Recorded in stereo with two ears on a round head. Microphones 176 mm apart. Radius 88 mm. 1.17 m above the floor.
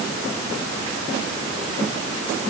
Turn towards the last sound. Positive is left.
No sound to turn to.